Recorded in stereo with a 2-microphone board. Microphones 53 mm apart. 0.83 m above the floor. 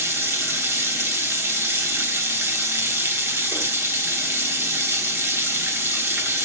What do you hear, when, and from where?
0.0 s running water: 50° right (ahead or behind), 1.2 m